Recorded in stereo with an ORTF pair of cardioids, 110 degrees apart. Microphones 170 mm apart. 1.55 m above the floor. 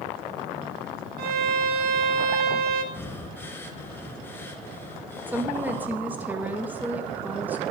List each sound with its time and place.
1.2 s a violin: 70° right, 1.4 m
2.9 s breathing: 10° left, 1.8 m
5.3 s a woman speaking: 10° right, 1.7 m